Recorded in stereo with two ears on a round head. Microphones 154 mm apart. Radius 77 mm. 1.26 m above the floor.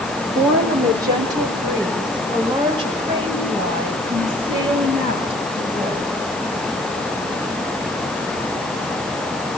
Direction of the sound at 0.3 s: 20° right (ahead or behind).